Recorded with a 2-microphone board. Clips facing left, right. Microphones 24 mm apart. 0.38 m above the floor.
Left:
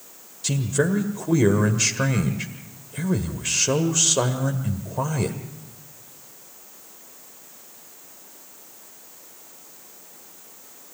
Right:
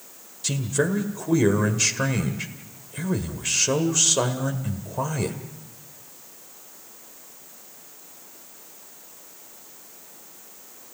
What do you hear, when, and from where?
0.4 s a man speaking: centre (ahead or behind), 1.5 m